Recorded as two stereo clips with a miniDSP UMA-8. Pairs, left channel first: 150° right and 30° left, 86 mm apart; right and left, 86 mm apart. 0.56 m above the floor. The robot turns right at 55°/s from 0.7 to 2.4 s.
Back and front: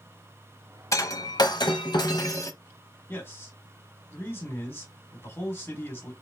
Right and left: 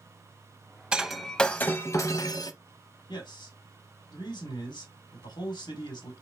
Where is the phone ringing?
I don't hear a phone ringing.